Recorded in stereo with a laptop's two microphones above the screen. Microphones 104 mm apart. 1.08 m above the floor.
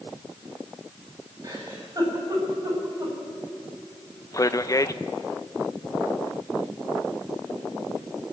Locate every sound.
1.4 s a giggle: 35° right (ahead or behind), 8 m
4.3 s a man speaking: 35° left (ahead or behind), 0.6 m